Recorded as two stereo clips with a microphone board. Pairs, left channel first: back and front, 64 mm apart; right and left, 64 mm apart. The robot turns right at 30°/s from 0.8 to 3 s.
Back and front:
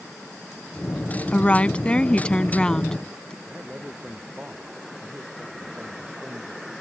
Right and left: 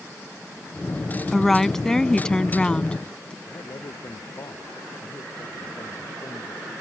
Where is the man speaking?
65° right.